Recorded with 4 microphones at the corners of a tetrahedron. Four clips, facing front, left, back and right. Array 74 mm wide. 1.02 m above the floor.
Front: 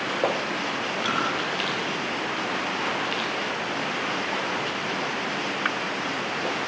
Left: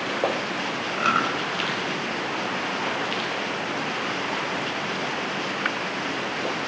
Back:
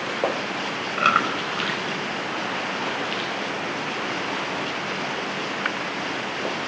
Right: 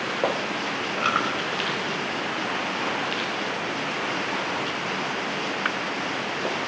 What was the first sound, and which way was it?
Chewing, 175° left.